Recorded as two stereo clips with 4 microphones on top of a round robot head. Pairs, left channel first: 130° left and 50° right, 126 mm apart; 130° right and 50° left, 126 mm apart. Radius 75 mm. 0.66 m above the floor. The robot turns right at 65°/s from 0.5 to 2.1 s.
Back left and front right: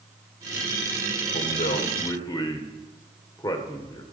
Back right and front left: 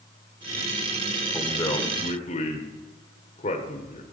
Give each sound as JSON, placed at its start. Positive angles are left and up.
{"t": 1.3, "sound": "a man speaking", "azimuth_deg": 145, "distance_m": 1.9}